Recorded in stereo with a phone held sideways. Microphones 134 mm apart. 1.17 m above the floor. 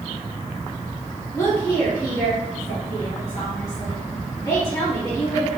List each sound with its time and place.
1.3 s a woman speaking: 25° left (ahead or behind), 1.9 m